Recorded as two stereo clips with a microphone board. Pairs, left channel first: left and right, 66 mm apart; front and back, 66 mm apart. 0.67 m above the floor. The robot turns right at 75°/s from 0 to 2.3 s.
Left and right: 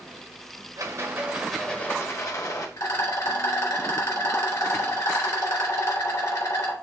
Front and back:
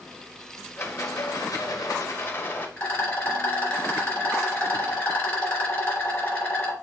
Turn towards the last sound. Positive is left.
turn(degrees=65)